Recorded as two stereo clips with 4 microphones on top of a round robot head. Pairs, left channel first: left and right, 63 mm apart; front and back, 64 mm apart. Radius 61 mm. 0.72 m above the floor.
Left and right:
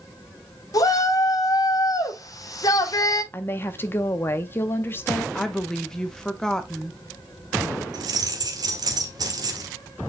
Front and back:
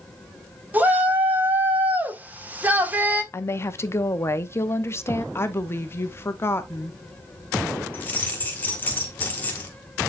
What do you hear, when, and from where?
0.7 s a shout: 115° left, 1.8 m
3.3 s a woman speaking: 40° left, 0.9 m
5.3 s a woman speaking: 15° left, 1.1 m
7.9 s keys jangling: 70° right, 1.3 m